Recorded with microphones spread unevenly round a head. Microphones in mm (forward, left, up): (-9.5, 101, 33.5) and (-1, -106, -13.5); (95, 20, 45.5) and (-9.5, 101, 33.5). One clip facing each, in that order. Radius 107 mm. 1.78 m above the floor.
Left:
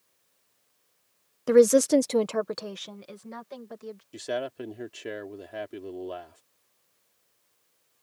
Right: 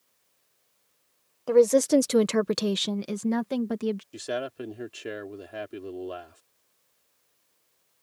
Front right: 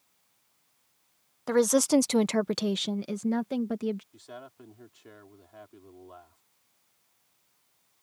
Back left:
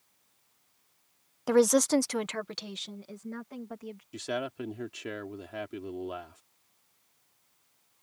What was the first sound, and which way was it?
A woman speaking, 65° left.